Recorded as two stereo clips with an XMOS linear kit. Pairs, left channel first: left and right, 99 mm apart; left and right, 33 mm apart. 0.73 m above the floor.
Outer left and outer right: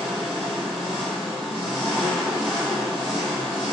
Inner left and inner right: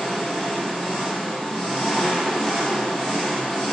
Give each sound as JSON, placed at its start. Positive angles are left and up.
{"t": 0.0, "sound": "an engine running", "side_deg": -10, "distance_m": 1.7}